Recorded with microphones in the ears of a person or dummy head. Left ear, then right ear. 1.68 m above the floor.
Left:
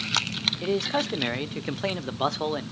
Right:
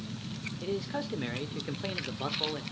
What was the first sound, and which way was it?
A man speaking, 30° left (ahead or behind).